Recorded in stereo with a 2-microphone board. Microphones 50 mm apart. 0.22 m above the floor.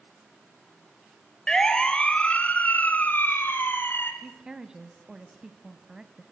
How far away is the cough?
No cough in this recording.